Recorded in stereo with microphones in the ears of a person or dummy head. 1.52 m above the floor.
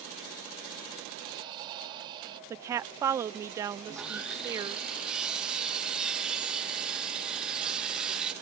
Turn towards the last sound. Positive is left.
turn(degrees=-5)  # may be behind; listen again after turning